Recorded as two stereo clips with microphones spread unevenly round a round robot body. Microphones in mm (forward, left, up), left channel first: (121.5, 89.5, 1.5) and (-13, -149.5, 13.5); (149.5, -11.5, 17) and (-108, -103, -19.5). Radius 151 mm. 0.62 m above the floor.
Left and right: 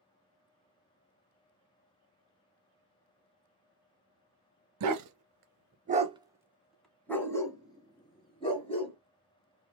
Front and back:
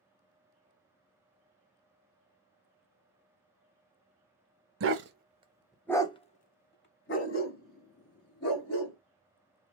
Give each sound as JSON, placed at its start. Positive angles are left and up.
{"t": 4.8, "sound": "a dog barking", "azimuth_deg": -120, "distance_m": 0.7}